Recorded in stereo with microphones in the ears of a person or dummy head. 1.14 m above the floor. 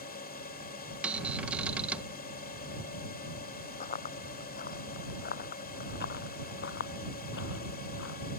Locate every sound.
0.0 s a drone: 50° left (ahead or behind)
1.0 s a cupboard door: 10° right (ahead or behind)
3.8 s running footsteps: 35° left (ahead or behind); by 8.2 s 60° left (ahead or behind)